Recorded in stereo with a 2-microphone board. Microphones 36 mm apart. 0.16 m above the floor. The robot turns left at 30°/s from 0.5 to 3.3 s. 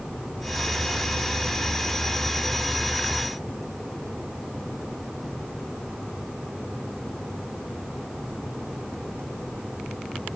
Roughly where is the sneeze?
No sneeze in this recording.